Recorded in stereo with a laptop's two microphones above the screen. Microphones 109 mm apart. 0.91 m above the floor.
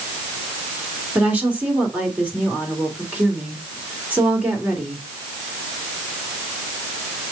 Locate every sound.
1.1 s a woman speaking: 15° right (ahead or behind), 3 m